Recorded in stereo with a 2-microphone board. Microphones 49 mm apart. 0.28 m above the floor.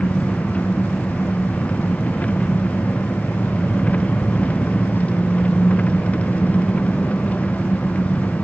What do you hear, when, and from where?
0.0 s an engine running: 30° left (ahead or behind)